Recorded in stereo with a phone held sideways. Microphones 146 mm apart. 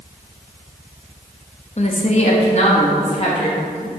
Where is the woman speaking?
50° left (ahead or behind), 0.9 m; by 3.9 s 40° left (ahead or behind), 2 m.